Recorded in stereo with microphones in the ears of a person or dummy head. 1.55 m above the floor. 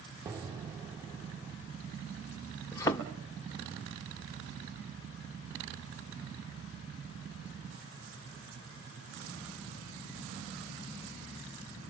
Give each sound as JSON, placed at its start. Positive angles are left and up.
{"t": 0.2, "sound": "an explosion", "side_deg": -15, "distance_m": 0.8}
{"t": 2.7, "sound": "a thud", "side_deg": 10, "distance_m": 0.9}